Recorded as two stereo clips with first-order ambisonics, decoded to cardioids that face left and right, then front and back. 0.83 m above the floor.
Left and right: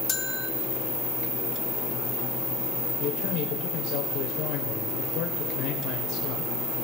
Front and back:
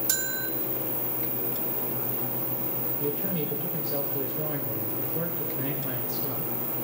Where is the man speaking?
105° left, 3 m.